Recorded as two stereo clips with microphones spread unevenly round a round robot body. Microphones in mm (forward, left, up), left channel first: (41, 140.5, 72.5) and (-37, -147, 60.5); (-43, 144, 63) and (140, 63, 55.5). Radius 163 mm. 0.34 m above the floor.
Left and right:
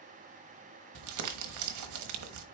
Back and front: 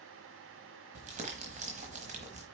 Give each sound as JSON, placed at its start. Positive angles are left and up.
{"t": 0.9, "sound": "crumpling", "azimuth_deg": -85, "distance_m": 1.2}